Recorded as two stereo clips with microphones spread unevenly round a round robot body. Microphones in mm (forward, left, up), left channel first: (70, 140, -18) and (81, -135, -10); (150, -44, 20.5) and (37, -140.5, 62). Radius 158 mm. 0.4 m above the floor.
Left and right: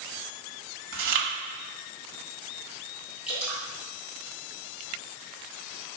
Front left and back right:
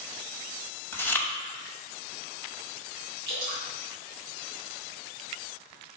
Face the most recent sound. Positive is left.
turn(degrees=-175)